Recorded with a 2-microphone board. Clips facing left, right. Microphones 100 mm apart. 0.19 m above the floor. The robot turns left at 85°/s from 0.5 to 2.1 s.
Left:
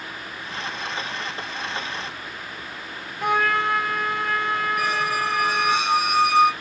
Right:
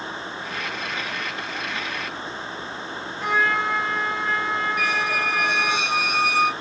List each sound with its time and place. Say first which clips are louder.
3.2 s a trumpet: left 1 dB; 60° left (ahead or behind), 0.6 m
4.8 s a squeak: left 1 dB; 40° left (ahead or behind), 1.4 m